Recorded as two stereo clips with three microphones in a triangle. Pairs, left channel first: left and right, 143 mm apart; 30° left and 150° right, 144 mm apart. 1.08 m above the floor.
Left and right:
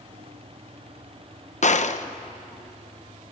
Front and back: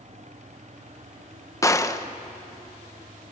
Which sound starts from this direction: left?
A gunshot, at 1.6 s.